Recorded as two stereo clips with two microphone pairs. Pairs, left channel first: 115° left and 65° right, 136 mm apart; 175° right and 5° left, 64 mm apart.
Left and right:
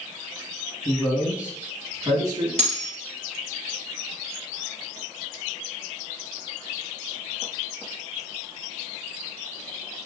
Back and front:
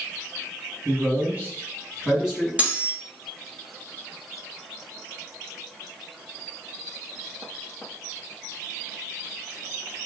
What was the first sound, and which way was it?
A man speaking, 30° left.